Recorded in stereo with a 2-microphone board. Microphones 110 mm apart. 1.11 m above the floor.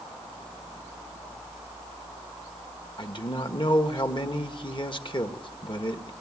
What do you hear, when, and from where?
3.0 s a man speaking: 45° left (ahead or behind), 1.4 m